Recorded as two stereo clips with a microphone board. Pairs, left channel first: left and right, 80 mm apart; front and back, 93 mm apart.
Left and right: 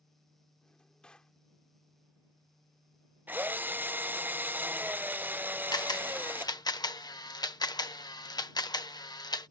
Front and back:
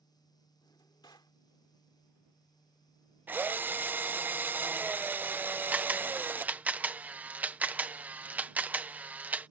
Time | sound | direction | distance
0.6 | a drawer | 15° left | ?
3.3 | a drill | 130° right | ?
5.7 | a camera shutter | 110° left | ?